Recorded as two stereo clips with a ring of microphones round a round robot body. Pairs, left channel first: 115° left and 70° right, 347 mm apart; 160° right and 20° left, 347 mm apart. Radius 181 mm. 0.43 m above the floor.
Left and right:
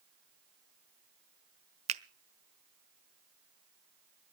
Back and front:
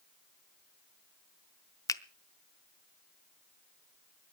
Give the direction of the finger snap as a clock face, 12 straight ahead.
3 o'clock.